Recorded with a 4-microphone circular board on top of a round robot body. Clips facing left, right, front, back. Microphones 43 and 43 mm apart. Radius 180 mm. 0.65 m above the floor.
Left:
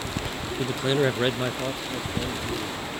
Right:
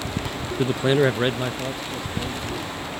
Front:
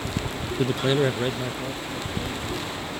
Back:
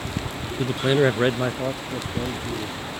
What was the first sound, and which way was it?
A man speaking, 75° right.